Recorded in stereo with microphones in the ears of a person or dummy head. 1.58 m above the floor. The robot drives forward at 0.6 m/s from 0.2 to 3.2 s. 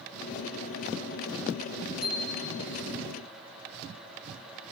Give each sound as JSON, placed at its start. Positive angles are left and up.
{"t": 2.0, "sound": "a bicycle bell", "side_deg": 5, "distance_m": 5.0}